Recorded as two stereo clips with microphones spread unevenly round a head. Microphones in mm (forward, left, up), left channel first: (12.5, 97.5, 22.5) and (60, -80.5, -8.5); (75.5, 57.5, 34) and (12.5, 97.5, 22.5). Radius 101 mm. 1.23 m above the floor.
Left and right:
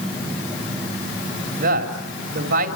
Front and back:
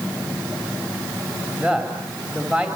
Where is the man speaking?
115° right, 3 m.